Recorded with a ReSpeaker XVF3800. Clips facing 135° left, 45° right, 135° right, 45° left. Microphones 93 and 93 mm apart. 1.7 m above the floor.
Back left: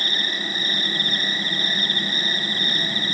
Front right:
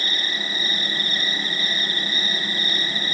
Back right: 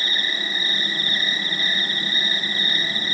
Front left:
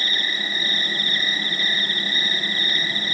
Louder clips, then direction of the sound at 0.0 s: Back left 1 dB, even; 170° left.